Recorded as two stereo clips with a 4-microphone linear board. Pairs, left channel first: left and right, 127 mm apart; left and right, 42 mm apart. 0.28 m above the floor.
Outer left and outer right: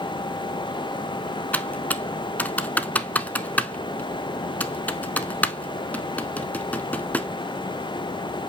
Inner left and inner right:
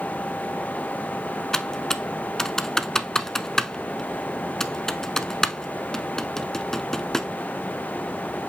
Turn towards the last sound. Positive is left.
turn(degrees=15)  # may be behind; listen again after turning